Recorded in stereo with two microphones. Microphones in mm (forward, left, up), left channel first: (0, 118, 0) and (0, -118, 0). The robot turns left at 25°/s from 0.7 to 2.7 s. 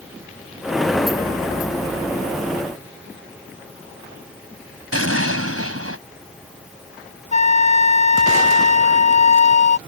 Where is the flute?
30° left (ahead or behind).